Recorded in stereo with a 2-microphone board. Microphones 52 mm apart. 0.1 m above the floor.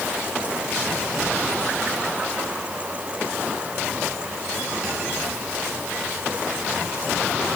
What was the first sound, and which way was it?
Only background noise.